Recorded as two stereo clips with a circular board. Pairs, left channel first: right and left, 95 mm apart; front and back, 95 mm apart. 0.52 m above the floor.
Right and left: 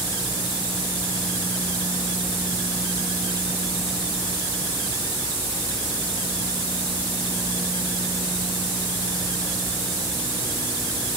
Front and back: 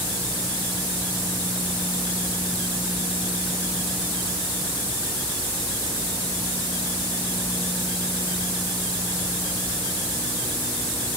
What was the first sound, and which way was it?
Only background noise.